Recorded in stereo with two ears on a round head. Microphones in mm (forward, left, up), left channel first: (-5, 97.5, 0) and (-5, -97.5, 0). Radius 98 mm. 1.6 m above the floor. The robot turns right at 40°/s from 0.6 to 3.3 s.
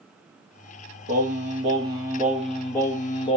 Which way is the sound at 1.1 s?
55° right.